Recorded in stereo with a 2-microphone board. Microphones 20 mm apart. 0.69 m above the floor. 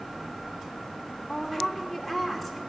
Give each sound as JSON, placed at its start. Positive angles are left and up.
{"t": 1.3, "sound": "a woman speaking", "side_deg": 0, "distance_m": 2.0}